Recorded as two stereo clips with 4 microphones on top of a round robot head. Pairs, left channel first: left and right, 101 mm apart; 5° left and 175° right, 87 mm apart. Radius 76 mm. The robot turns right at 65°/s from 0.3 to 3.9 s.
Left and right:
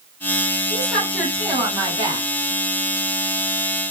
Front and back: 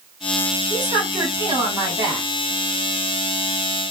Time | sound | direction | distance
0.7 | a woman speaking | 155° left | 1.7 m